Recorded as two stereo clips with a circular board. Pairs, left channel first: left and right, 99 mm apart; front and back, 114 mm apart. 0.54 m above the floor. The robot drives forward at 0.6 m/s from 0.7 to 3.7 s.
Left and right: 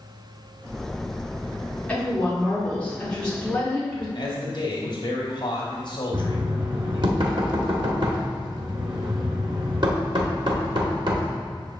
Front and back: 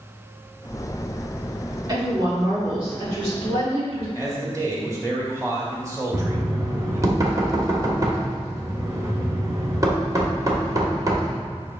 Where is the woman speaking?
155° left, 1.5 m; by 4.0 s 170° left, 2.5 m.